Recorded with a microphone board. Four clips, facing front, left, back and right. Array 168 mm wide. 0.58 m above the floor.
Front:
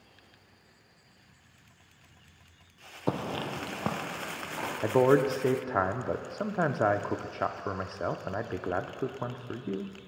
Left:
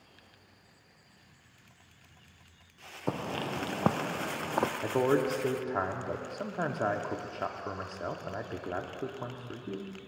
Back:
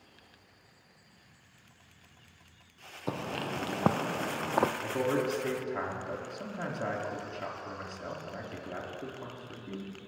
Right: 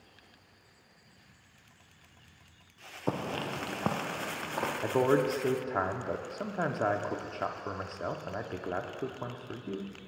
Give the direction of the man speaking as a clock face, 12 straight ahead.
12 o'clock.